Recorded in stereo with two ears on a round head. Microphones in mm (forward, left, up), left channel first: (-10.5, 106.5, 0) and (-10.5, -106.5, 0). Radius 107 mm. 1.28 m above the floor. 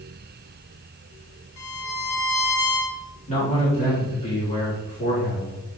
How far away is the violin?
About 2.0 m.